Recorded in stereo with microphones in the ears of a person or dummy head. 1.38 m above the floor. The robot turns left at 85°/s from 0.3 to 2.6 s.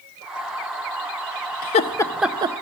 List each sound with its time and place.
1.6 s laughter: 45° left (ahead or behind), 0.6 m; by 2.5 s 25° right (ahead or behind), 0.6 m